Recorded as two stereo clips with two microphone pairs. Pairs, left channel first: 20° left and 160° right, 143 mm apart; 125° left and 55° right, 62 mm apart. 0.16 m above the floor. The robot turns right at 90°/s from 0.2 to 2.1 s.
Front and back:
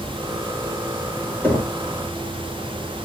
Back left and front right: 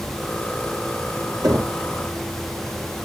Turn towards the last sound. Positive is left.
turn(degrees=0)